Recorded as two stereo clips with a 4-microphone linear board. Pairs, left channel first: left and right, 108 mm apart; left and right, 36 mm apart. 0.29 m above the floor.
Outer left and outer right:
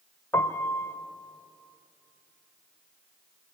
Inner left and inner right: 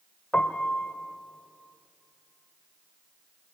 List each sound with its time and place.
0.3 s a piano: 20° left (ahead or behind), 1.3 m